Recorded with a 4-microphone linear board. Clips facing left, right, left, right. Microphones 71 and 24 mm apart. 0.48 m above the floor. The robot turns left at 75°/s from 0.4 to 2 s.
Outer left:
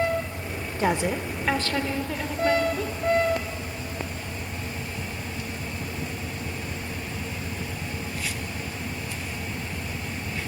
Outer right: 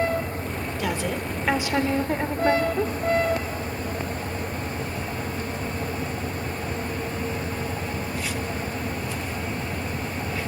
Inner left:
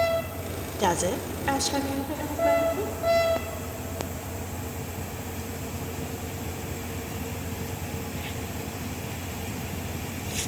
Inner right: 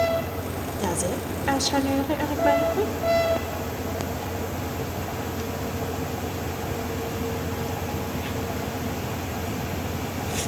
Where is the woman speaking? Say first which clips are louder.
Outer left 4 dB, inner left 3 dB; 45° left, 1.2 m; by 2.9 s 45° right, 1.2 m.